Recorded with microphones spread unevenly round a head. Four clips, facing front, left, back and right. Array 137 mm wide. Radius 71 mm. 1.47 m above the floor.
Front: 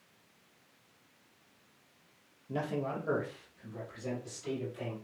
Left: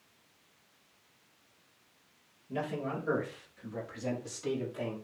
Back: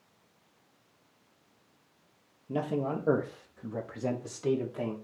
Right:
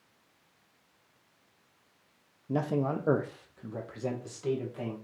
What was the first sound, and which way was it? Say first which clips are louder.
A man speaking: right 6 dB, back 4 dB; 105° right.